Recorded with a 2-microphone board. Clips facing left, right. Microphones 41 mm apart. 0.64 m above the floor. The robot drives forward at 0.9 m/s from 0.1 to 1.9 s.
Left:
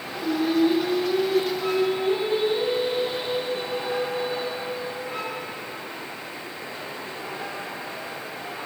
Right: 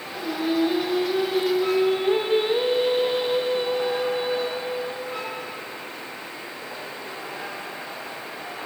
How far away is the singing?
About 2.5 m.